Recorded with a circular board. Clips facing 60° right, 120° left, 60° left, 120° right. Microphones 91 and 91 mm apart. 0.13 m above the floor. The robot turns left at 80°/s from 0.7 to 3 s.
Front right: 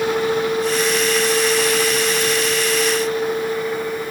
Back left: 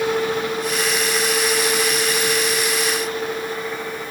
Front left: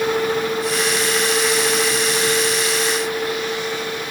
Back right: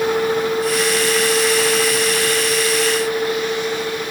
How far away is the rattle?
I don't hear a rattle.